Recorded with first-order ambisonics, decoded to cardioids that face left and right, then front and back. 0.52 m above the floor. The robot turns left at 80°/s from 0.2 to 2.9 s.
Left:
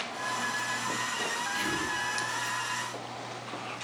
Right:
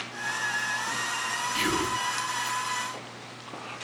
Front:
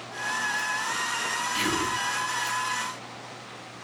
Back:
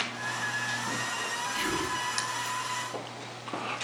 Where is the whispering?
55° right, 0.7 m; by 2.0 s 90° right, 0.7 m.